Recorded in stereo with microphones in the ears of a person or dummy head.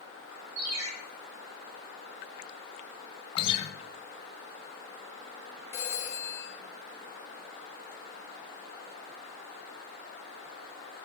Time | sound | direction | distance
0.6 | a ringtone | 90° right | 1.0 m
3.4 | a guitar | 30° left (ahead or behind) | 0.6 m
5.7 | a phone ringing | 15° left (ahead or behind) | 1.0 m